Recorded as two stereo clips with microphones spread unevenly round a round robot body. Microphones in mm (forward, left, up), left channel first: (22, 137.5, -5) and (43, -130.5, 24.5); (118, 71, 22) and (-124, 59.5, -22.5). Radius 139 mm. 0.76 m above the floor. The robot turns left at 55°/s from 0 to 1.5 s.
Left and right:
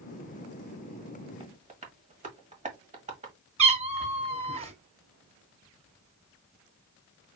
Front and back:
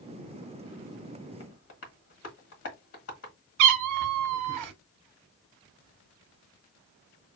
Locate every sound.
1.4 s tapping: 20° right, 1.4 m; by 3.3 s 25° right, 1.4 m
3.6 s a cat meowing: 150° right, 0.9 m